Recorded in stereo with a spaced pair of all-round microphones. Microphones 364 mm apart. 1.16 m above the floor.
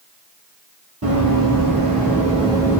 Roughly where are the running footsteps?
Right.